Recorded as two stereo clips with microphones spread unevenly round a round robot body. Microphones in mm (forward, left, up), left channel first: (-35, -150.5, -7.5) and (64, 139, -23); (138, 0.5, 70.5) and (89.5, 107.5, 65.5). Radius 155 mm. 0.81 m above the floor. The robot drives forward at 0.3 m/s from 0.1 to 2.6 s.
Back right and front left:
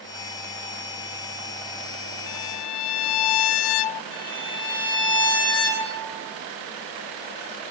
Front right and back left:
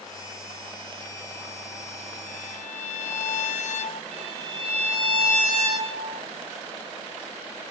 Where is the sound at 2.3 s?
95° right, 0.9 m; by 4.0 s 100° right, 0.9 m.